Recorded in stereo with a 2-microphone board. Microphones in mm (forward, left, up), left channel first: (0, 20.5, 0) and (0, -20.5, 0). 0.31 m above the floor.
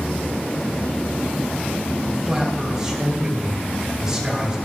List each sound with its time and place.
2.1 s a man speaking: 15° right (ahead or behind), 2 m